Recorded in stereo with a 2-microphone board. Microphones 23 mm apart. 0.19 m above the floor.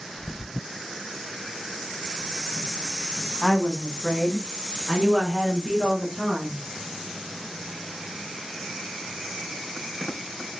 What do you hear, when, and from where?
3.4 s a woman speaking: 30° left (ahead or behind), 1.3 m; by 6.6 s 20° right (ahead or behind), 3 m